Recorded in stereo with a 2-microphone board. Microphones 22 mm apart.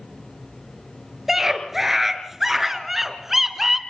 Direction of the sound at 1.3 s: 10° right (ahead or behind).